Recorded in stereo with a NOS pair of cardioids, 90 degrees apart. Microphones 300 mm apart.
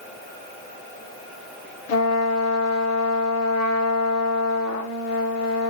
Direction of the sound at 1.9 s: 65° left.